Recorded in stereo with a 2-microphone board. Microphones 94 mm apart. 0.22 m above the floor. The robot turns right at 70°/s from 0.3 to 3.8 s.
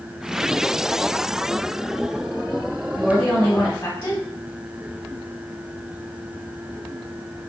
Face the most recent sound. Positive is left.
turn(degrees=50)